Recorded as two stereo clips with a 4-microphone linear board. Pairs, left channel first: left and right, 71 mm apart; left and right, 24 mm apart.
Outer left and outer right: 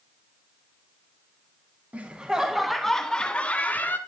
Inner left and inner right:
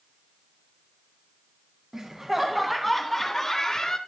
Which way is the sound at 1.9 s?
20° right (ahead or behind).